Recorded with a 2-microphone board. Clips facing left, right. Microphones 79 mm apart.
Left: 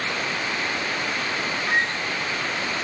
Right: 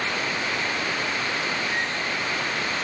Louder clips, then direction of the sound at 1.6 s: Left 3 dB; 65° left (ahead or behind).